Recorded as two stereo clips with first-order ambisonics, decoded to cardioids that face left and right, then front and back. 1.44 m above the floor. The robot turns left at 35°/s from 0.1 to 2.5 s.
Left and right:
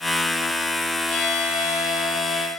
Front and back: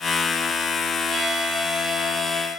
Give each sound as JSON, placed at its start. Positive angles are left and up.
{"t": 1.1, "sound": "a violin", "azimuth_deg": 115, "distance_m": 5.5}